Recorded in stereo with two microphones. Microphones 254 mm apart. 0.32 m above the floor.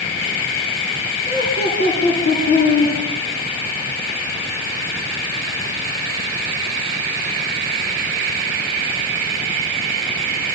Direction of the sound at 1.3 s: 40° left (ahead or behind).